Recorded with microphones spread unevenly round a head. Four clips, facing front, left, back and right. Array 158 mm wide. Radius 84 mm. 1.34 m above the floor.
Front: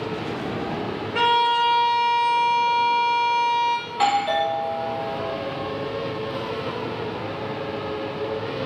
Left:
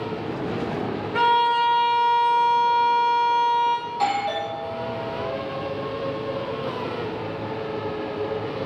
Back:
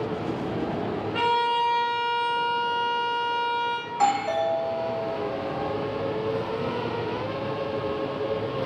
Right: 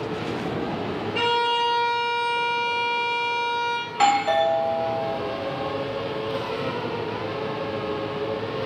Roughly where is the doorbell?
Ahead right.